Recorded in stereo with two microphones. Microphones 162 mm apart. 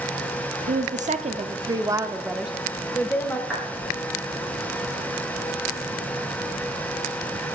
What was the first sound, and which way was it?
A woman speaking, 55° right (ahead or behind).